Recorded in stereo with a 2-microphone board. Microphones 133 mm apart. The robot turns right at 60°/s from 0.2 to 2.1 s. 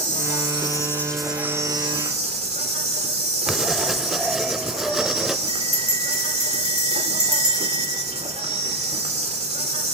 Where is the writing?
Centre (ahead or behind), 0.7 m.